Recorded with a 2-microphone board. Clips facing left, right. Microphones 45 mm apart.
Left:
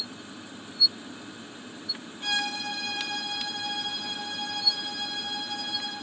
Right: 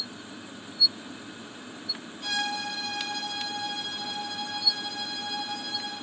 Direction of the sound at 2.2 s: 40° left (ahead or behind).